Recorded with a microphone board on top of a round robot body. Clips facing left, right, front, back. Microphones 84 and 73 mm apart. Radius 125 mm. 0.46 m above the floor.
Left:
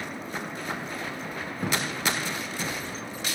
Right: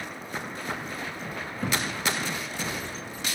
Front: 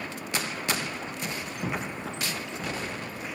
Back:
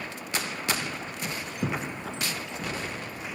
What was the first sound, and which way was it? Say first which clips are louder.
A thud: even, back 2 dB; 165° left.